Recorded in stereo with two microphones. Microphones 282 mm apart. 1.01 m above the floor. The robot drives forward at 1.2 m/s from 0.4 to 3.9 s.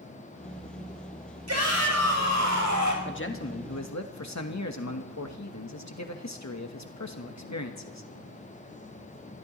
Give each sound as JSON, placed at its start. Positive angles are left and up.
{"t": 1.5, "sound": "a shout", "side_deg": -60, "distance_m": 5.5}
{"t": 3.0, "sound": "a man speaking", "side_deg": 40, "distance_m": 1.8}